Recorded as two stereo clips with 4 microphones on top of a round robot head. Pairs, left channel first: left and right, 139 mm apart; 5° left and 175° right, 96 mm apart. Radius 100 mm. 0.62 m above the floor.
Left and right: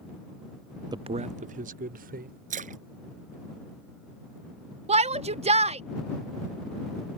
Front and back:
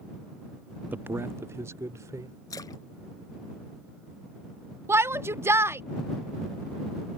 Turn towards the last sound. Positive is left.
turn(degrees=-115)